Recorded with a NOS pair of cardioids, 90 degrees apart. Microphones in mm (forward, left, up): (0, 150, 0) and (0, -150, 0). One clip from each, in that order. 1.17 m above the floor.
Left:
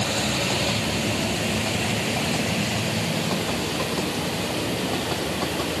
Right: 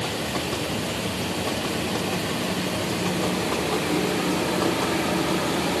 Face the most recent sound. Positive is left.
No sound to turn to.